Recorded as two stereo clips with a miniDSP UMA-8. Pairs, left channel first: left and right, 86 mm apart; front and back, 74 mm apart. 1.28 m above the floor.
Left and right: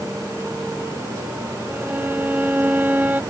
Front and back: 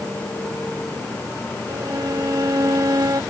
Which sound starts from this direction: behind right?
A violin, at 1.7 s.